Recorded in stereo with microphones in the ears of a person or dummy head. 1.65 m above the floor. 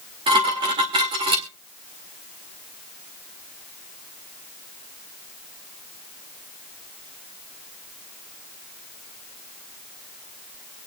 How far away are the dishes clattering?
About 1.9 m.